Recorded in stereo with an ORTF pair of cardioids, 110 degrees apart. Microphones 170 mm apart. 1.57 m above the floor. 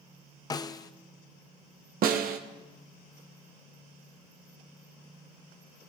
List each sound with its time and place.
0.5 s a snare drum: 20° left, 0.6 m
2.0 s a snare drum: 60° right, 1.2 m